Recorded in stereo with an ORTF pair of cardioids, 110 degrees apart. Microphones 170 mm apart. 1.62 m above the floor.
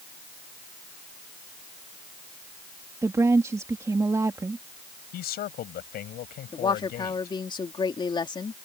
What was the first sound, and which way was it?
A woman speaking, 20° right.